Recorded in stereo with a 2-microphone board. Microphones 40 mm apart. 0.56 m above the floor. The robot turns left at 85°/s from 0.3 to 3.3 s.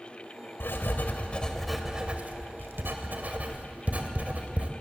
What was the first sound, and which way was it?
Writing, 70° left (ahead or behind).